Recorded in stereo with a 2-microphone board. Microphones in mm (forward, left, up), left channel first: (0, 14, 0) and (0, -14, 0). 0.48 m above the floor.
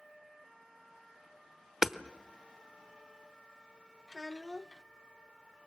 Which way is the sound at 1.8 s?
15° right (ahead or behind).